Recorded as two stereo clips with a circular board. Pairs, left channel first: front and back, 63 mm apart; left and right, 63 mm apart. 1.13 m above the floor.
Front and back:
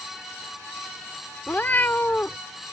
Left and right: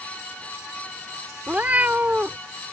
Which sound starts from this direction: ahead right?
A cat meowing, at 1.5 s.